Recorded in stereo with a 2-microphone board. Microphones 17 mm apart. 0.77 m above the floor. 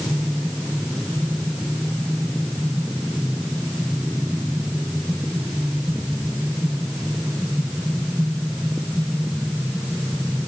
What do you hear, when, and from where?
Only background noise.